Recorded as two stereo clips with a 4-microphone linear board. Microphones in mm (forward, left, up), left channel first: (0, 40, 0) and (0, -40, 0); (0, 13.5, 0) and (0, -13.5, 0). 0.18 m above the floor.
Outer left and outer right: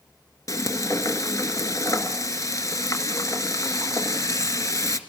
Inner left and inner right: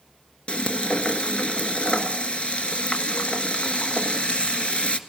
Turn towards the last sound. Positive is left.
turn(degrees=45)  # may be behind; listen again after turning